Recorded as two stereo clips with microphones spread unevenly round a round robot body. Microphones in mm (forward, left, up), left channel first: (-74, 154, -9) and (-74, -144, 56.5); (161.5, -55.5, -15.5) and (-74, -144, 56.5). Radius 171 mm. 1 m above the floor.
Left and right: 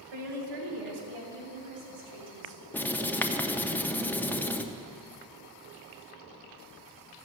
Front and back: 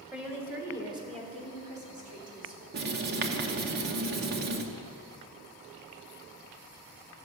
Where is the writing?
Straight behind, 0.6 m.